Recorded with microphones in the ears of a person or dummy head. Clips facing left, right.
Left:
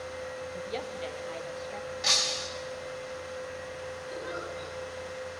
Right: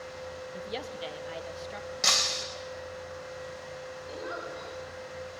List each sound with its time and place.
0.5 s a woman speaking: 10° right (ahead or behind), 2.5 m; by 1.9 s 15° right (ahead or behind), 3 m
2.0 s breaking glass: 55° right (ahead or behind), 4 m
4.1 s a giggle: 60° right (ahead or behind), 7 m